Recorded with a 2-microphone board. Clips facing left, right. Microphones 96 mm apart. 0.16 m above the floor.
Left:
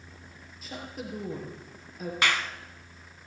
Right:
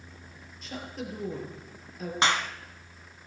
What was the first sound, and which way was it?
A woman speaking, 5° left (ahead or behind).